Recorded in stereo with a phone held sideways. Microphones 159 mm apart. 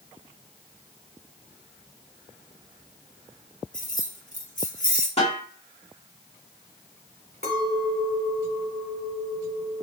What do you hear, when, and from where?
3.7 s keys jangling: 55° left (ahead or behind), 1.2 m
5.2 s a snare drum: 45° left (ahead or behind), 1.4 m
7.4 s a clink: 80° right, 2.5 m